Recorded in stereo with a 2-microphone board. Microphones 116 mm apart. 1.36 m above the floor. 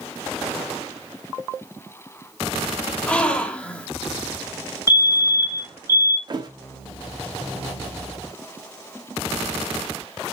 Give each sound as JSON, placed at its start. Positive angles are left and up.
{"t": 3.1, "sound": "a gasp", "side_deg": 10, "distance_m": 1.2}
{"t": 4.9, "sound": "a fire alarm", "side_deg": -25, "distance_m": 3.5}
{"t": 6.3, "sound": "a thud", "side_deg": -40, "distance_m": 1.1}